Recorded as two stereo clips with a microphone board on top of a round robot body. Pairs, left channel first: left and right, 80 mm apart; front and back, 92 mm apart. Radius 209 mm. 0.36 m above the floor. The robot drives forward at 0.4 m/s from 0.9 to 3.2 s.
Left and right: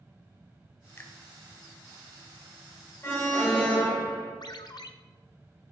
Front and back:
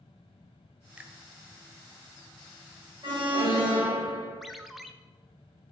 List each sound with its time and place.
1.0 s a finger snap: 115° left, 0.8 m; by 1.2 s 125° left, 0.8 m
3.0 s an alarm: 145° left, 2.5 m
4.4 s a ringtone: 90° left, 0.7 m